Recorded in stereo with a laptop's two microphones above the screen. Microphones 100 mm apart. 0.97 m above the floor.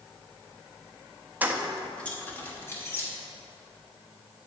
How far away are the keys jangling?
About 0.6 m.